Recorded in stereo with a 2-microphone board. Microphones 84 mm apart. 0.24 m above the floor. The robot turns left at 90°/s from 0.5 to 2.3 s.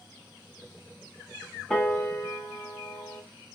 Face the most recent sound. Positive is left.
turn(degrees=55)  # may be behind; listen again after turning